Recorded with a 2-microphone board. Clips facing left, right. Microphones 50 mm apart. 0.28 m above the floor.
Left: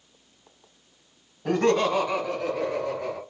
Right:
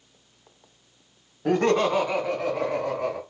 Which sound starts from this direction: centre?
Laughter, at 1.4 s.